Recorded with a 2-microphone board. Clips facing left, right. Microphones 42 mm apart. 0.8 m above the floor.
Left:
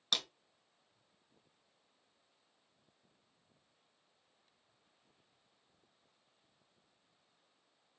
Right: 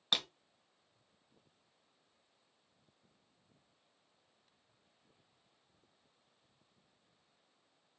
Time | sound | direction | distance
0.1 | breaking glass | 20° right (ahead or behind) | 1.6 m